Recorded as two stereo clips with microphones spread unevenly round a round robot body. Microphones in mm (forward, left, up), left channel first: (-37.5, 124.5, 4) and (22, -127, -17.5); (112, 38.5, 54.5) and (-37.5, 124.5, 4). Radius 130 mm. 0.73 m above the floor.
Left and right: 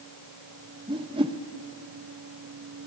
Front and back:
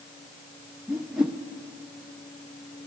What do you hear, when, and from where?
0.9 s a whoosh: 140° right, 0.9 m